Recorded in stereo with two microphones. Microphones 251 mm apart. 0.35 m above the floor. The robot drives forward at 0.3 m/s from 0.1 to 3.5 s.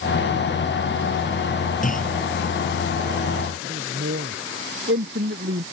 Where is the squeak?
No squeak in this recording.